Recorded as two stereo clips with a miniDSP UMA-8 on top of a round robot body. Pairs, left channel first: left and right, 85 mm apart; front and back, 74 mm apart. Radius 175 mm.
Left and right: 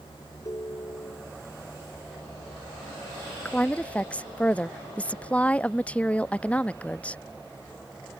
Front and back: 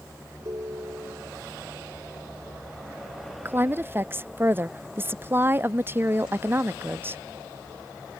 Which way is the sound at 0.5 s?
140° left.